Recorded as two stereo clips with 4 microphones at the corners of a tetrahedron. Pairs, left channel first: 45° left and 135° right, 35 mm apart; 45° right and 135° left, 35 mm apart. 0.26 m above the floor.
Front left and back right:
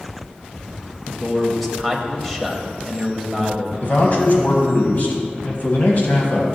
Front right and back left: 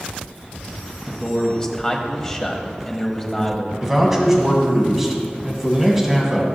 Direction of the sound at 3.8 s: 50° left.